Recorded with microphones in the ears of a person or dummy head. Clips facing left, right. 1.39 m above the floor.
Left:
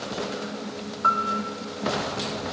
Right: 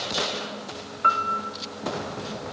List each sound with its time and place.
1.0 s a piano: 35° right (ahead or behind), 1.7 m